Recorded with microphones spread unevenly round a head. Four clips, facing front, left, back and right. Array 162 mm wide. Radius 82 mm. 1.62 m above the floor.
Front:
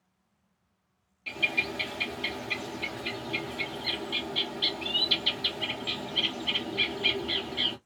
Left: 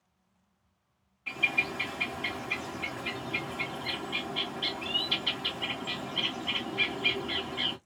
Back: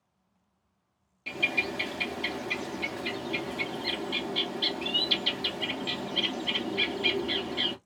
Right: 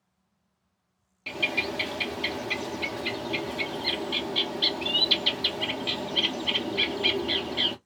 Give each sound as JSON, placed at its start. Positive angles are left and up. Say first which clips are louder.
{"t": 1.3, "sound": "a bird", "louder": "right 3 dB, back 1 dB", "azimuth_deg": -120, "distance_m": 0.8}